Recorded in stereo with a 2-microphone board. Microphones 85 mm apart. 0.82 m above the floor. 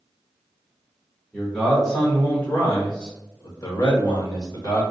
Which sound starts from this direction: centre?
A man speaking, at 1.3 s.